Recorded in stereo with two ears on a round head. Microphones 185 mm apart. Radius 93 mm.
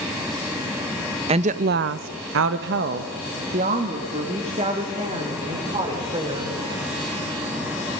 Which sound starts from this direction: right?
A woman speaking, at 1.3 s.